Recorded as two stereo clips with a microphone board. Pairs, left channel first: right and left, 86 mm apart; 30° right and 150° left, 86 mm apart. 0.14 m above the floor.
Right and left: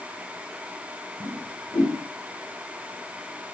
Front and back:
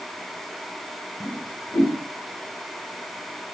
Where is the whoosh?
70° right, 6.5 m.